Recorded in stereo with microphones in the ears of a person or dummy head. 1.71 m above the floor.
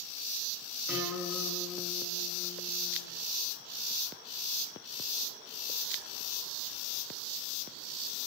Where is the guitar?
5° right (ahead or behind), 5.5 m.